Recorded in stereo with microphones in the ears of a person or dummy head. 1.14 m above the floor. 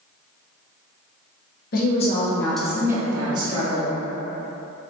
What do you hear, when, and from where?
1.7 s a woman speaking: 50° left (ahead or behind), 0.7 m; by 3.9 s 35° right (ahead or behind), 1.4 m